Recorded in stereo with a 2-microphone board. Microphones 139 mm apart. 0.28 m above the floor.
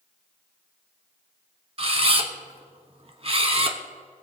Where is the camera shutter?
45° right (ahead or behind), 0.9 m.